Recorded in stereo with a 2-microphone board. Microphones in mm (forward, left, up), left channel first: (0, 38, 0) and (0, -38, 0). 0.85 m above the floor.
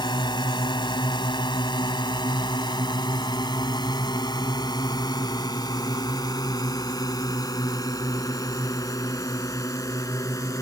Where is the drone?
80° left; by 10.6 s 45° left (ahead or behind).